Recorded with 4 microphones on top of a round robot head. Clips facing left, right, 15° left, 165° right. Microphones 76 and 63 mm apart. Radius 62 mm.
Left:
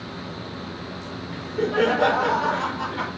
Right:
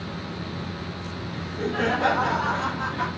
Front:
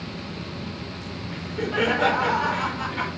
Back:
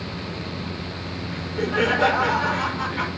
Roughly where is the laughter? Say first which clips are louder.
Left 5 dB, back 2 dB; left.